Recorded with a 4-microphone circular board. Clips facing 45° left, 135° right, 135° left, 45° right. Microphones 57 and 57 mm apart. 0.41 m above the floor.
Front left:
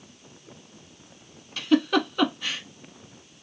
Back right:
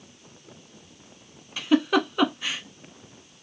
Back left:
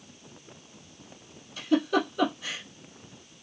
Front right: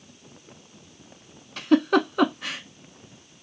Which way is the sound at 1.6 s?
55° right.